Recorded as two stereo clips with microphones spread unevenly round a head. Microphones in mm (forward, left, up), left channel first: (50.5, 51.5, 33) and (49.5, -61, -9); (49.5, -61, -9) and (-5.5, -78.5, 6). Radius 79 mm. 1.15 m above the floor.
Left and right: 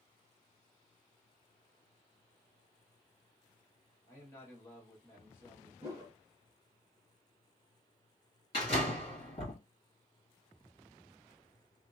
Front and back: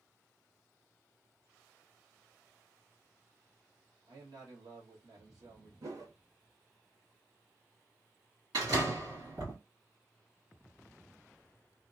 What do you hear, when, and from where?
4.1 s a man speaking: 170° left, 1.2 m
5.8 s a whoosh: 160° right, 1.2 m
8.5 s a door slam: 145° left, 1.6 m